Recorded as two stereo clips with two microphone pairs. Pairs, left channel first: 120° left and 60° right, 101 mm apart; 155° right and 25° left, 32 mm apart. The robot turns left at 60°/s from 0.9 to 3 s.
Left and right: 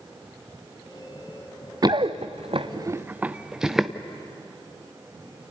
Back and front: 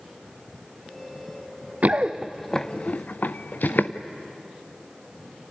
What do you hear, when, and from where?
1.8 s running footsteps: 15° right, 0.9 m; by 3.9 s 150° right, 1.2 m